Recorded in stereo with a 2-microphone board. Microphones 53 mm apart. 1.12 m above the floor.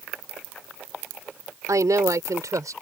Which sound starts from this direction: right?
A woman speaking, at 1.7 s.